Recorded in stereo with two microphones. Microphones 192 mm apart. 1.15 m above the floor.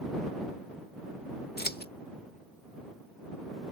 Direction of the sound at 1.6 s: 55° left (ahead or behind).